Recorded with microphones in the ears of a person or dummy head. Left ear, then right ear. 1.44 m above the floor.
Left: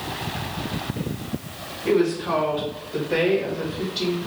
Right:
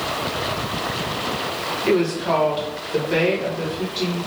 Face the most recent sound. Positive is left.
turn(degrees=0)  # may be behind; listen again after turning